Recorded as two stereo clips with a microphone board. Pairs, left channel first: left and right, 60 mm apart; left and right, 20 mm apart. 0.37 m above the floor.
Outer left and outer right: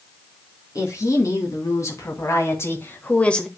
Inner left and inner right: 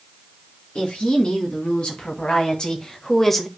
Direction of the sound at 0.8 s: 65° left (ahead or behind).